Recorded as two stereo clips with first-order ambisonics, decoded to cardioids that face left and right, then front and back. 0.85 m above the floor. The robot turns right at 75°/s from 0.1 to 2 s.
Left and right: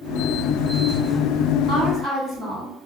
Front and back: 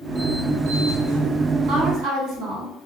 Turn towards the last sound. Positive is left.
turn(degrees=160)